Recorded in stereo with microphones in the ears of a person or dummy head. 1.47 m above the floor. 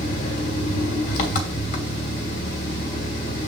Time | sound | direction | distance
0.0 | an engine running | 45° left (ahead or behind) | 1.5 m